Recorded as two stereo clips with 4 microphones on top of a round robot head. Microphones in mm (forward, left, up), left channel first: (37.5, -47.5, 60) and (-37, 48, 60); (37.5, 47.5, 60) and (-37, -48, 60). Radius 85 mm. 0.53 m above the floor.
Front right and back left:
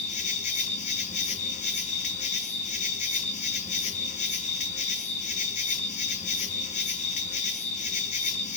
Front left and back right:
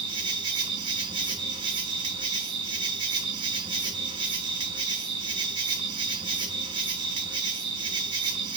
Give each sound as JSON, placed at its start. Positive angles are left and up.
{"t": 0.0, "sound": "an insect", "azimuth_deg": -75, "distance_m": 4.0}